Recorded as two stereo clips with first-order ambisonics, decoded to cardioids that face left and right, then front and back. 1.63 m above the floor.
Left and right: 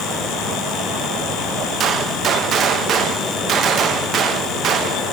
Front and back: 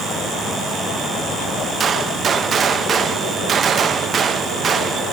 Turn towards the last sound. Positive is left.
turn(degrees=-130)